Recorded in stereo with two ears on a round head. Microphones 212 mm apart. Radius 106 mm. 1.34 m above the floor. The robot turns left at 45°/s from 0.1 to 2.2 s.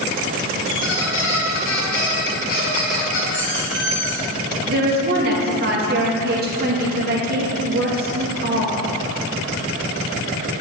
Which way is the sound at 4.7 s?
40° right (ahead or behind).